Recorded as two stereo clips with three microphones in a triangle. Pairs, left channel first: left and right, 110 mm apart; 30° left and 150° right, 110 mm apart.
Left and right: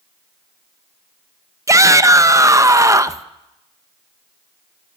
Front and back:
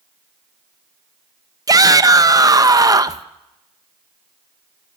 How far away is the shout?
About 0.7 m.